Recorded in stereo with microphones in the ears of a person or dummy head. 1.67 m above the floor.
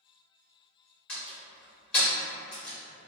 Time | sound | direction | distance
1.1 | a door slam | 10° left (ahead or behind) | 0.8 m